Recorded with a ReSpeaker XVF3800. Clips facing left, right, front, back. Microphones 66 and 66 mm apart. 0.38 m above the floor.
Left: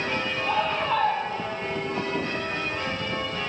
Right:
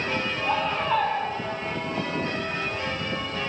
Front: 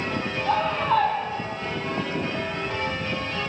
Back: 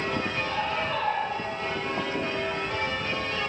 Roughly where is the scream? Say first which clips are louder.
Even, front 6 dB; ahead.